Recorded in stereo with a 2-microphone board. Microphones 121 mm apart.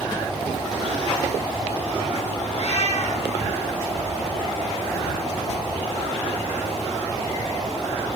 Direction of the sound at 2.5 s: 55° left (ahead or behind).